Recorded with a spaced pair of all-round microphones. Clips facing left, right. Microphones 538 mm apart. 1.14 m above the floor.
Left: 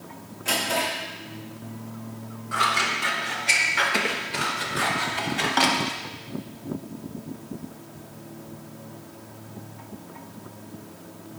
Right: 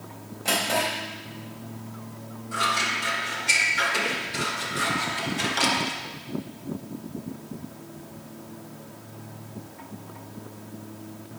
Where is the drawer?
80° right, 3.5 m.